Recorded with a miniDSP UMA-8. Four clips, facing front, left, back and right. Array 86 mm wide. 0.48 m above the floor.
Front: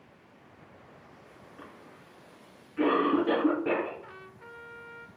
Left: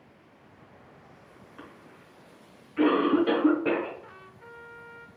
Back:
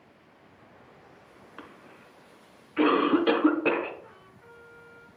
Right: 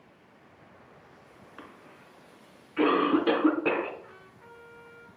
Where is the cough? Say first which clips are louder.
Even, back 3 dB; 160° right, 1.5 m.